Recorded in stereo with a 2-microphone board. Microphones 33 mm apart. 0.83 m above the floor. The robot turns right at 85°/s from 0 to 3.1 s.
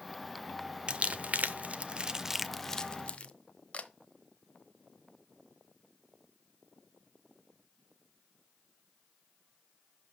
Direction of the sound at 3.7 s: 45° left (ahead or behind).